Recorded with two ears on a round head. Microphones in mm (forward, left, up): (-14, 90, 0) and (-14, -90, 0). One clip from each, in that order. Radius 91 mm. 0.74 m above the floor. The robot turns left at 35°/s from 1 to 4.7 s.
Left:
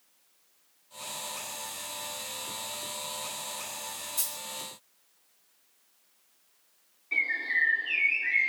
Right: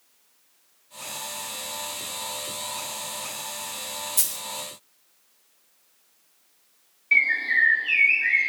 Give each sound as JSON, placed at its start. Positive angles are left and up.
{"t": 4.2, "sound": "a dropped coin", "side_deg": -25, "distance_m": 1.1}
{"t": 7.1, "sound": "a bird", "side_deg": -85, "distance_m": 2.0}